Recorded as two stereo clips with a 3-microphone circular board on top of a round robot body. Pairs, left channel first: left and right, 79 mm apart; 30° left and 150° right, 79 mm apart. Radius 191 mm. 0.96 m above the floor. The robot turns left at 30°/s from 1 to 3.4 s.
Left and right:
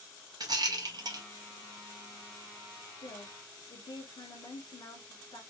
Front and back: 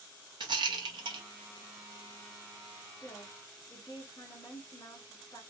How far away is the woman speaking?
About 1.1 m.